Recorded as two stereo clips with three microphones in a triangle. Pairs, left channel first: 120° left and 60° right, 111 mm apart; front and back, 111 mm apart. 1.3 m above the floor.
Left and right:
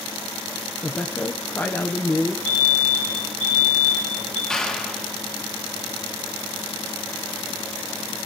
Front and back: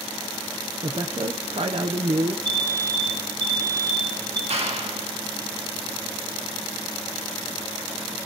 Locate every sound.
0.8 s a woman speaking: 170° right, 0.7 m
2.5 s an alarm: 125° left, 6 m
4.5 s a clap: 155° right, 2.0 m